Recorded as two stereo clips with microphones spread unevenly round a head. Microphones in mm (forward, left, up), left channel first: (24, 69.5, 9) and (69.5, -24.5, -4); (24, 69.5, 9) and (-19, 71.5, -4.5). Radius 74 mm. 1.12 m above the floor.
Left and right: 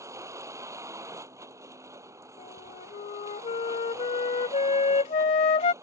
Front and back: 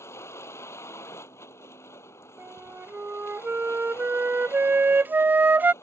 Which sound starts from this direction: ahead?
A vehicle, at 0.0 s.